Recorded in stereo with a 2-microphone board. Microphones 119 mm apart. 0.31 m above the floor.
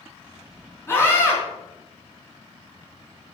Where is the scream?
20° left (ahead or behind), 4 m.